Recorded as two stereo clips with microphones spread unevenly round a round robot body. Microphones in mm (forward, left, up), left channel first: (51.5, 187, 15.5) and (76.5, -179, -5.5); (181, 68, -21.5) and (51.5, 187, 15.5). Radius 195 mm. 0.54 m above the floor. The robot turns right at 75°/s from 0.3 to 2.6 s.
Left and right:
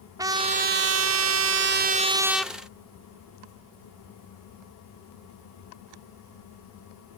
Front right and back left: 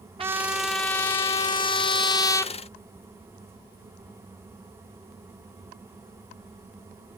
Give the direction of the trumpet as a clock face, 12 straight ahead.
5 o'clock.